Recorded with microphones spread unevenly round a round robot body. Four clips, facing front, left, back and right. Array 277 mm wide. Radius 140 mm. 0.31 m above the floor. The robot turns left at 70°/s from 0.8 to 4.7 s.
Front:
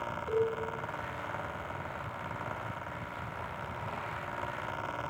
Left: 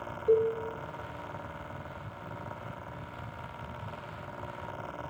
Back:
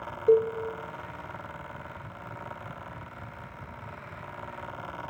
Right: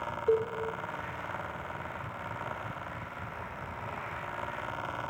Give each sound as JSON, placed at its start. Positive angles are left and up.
{"t": 0.3, "sound": "a cowbell", "azimuth_deg": -160, "distance_m": 3.0}